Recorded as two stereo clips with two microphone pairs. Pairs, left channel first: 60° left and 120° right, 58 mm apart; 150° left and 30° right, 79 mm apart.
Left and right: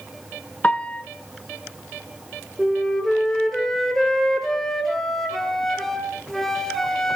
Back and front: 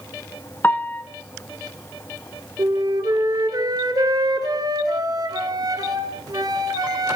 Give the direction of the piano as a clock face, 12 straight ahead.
8 o'clock.